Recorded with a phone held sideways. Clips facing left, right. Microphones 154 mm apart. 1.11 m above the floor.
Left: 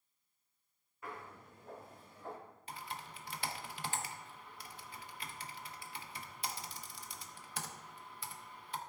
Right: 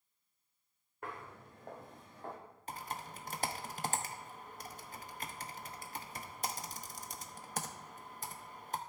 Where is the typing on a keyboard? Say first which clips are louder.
Right 4 dB; 45° right (ahead or behind), 0.6 m.